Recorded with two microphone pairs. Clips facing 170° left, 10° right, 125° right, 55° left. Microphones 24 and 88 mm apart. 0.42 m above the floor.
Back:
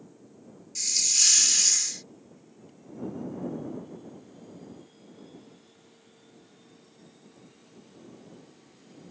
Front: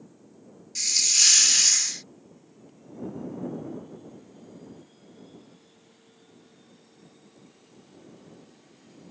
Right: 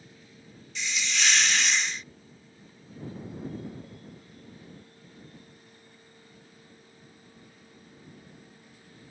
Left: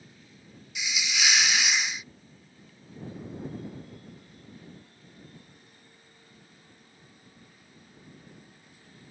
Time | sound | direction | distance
0.8 | a hiss | 10° right | ?